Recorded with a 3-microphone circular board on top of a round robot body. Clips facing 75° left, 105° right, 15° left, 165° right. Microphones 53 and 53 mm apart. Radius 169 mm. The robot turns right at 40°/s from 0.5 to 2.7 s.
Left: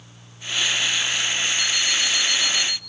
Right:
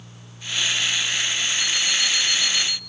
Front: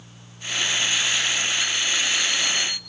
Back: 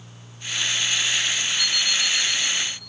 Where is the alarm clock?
160° right, 1.9 m; by 2.8 s 115° right, 1.9 m.